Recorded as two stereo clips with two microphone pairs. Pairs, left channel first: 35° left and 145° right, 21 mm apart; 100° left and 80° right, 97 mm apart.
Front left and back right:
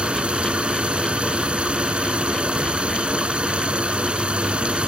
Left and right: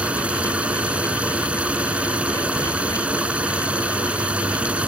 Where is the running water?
155° right.